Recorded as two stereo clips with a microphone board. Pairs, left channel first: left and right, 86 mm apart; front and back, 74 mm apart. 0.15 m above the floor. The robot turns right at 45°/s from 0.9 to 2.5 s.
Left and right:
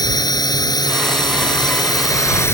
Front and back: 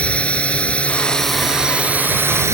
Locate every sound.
0.0 s a drone: 70° left; by 2.5 s 140° left